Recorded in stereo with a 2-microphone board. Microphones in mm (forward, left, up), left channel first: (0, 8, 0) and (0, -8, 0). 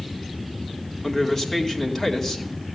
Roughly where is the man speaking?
Centre.